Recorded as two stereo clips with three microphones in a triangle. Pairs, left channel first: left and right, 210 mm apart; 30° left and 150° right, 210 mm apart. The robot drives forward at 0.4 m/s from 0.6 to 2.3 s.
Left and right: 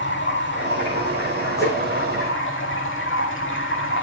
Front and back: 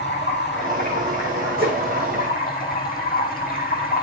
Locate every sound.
0.0 s running water: 65° left, 4 m; by 4.0 s 75° left, 4 m
1.6 s a whoosh: 165° left, 8.5 m